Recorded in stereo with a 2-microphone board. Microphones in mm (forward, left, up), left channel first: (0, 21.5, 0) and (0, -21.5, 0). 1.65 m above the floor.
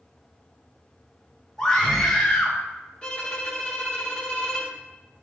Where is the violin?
20° left (ahead or behind), 1.1 m.